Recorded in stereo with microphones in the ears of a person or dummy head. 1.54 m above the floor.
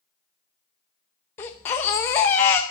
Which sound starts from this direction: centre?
A baby crying, at 1.4 s.